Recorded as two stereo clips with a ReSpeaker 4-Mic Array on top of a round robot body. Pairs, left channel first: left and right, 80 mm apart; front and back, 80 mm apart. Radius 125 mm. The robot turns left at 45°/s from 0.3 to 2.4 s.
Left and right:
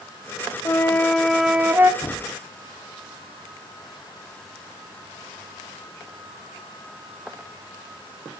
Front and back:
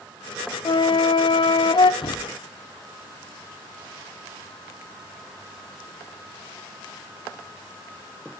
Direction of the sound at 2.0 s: 30° left.